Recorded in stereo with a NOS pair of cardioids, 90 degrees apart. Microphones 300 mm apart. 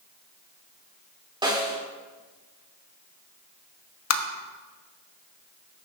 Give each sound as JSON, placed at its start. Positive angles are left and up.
{"t": 1.4, "sound": "a snare drum", "azimuth_deg": -15, "distance_m": 3.0}
{"t": 4.1, "sound": "tapping", "azimuth_deg": 60, "distance_m": 1.2}